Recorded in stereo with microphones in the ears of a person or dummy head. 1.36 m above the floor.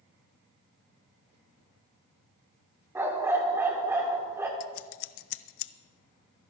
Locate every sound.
3.0 s a dog barking: 10° right (ahead or behind), 1.7 m
4.6 s scissors: 70° left (ahead or behind), 0.6 m